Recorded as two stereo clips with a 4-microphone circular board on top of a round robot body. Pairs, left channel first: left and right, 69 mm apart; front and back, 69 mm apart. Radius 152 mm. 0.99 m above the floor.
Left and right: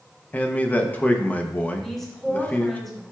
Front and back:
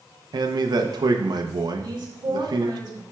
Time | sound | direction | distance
0.3 | a man speaking | 160° left | 0.8 m
1.8 | a woman speaking | 170° left | 1.8 m